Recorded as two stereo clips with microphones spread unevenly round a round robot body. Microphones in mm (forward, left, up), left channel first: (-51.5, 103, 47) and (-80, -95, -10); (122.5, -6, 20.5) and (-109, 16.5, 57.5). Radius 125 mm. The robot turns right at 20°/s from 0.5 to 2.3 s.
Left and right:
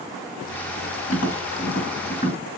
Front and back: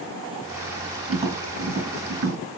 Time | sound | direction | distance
1.1 | tapping | 105° left | 2.5 m